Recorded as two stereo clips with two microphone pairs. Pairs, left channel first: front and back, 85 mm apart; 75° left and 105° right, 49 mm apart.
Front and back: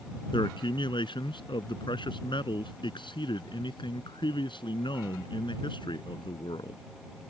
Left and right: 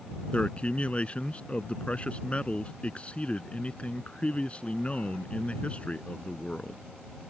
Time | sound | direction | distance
0.3 | a man speaking | 10° left | ?